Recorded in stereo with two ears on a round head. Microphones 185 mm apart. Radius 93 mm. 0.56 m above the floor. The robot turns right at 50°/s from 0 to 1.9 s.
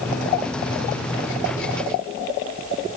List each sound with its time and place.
Only background noise.